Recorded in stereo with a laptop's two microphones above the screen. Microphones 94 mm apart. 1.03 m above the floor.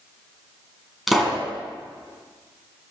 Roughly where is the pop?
Centre.